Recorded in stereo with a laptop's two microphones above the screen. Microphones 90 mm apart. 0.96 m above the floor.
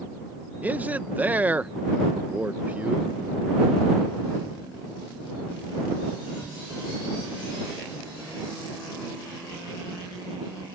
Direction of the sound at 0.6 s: 20° right (ahead or behind).